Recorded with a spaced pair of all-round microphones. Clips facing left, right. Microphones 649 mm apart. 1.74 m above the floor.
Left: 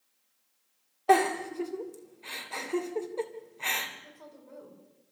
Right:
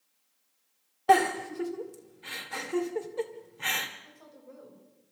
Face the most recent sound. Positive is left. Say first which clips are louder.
# left 1 dB
turn(degrees=70)  # may be behind; listen again after turning